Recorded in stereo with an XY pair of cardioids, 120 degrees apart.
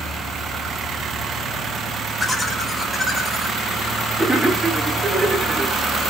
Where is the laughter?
5° left, 4.5 m; by 5.8 s 25° right, 1.9 m.